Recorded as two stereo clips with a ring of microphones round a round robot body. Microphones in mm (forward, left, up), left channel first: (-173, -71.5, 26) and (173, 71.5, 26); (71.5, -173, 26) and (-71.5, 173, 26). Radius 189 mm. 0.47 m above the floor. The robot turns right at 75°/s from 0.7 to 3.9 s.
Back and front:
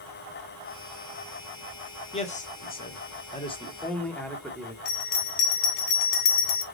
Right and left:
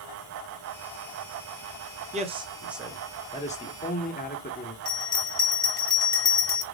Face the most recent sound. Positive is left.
turn(degrees=-145)